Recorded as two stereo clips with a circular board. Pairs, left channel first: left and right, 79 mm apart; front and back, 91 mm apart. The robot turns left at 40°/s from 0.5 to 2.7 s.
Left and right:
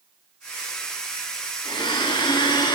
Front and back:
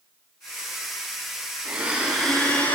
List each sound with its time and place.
1.6 s a blender: 115° left, 5.5 m; by 2.8 s 75° left, 5.5 m